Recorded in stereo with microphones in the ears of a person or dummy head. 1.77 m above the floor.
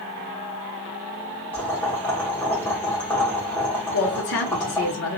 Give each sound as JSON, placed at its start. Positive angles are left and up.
{"t": 1.5, "sound": "boiling", "side_deg": 10, "distance_m": 1.5}
{"t": 3.9, "sound": "a woman speaking", "side_deg": 50, "distance_m": 0.6}